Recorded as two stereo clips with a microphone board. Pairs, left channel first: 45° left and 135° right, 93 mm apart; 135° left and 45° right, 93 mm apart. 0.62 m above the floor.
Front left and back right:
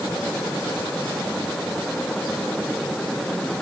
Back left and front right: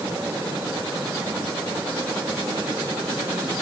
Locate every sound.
Only background noise.